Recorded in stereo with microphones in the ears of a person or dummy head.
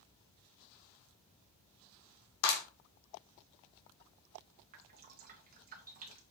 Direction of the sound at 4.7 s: 40° right (ahead or behind).